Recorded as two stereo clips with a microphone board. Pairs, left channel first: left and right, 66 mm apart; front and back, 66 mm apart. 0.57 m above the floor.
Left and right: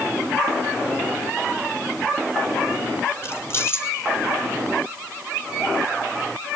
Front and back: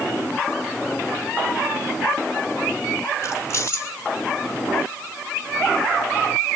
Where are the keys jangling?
40° left, 1.9 m.